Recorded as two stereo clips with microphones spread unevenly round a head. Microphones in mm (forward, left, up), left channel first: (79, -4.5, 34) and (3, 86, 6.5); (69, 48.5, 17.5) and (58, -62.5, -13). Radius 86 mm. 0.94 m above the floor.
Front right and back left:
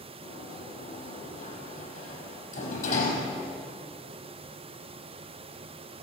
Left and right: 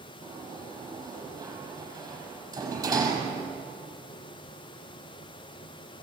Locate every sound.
0.2 s a sliding door: 40° right, 6.5 m